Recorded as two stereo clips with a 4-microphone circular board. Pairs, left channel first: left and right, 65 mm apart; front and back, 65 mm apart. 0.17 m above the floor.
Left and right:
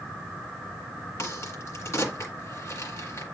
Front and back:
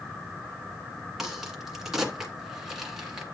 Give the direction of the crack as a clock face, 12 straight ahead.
9 o'clock.